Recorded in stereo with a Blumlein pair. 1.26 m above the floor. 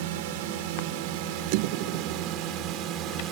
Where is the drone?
50° right; by 3.3 s 35° right.